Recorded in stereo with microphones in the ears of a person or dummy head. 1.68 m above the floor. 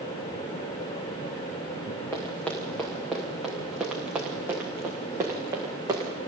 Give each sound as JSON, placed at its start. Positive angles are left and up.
{"t": 2.1, "sound": "running footsteps", "side_deg": 10, "distance_m": 7.0}